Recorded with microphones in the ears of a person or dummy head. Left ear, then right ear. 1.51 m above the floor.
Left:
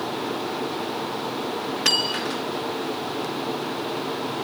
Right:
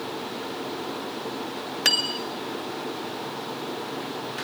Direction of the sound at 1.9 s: 15° right (ahead or behind).